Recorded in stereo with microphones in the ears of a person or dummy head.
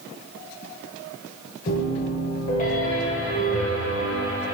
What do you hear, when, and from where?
1.7 s a piano: 40° left (ahead or behind), 0.9 m